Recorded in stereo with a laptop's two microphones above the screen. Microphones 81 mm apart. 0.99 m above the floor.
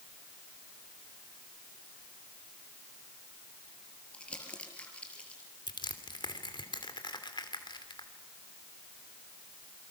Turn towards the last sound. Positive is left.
turn(degrees=65)  # may be behind; listen again after turning